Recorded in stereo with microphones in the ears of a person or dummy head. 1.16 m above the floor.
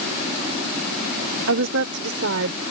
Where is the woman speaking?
80° right; by 2.6 s 85° right.